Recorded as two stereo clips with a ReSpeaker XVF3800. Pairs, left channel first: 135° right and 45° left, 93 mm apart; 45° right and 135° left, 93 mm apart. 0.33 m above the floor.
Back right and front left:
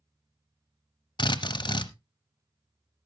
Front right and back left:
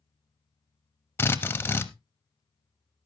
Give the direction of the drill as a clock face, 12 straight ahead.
4 o'clock.